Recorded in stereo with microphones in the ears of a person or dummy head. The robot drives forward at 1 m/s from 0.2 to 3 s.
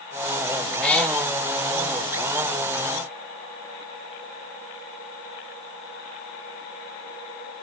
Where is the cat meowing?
10° left (ahead or behind), 1.0 m; by 1.2 s 5° left (ahead or behind), 1.3 m.